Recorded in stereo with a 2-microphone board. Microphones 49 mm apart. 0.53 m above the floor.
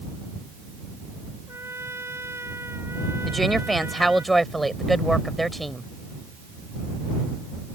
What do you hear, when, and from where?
1.5 s a trumpet: 65° right (ahead or behind)
3.2 s a woman speaking: 5° left (ahead or behind)